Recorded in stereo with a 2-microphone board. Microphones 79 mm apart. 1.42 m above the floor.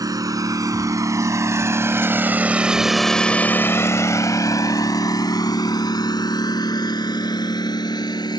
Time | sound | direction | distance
0.0 | a lawn mower | 50° right (ahead or behind) | ?